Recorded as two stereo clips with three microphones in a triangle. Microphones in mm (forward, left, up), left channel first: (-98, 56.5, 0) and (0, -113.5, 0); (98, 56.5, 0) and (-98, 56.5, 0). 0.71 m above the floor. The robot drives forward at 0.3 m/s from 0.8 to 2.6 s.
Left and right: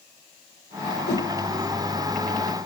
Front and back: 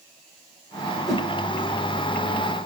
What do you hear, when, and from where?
1.1 s a whoosh: 90° left, 1.7 m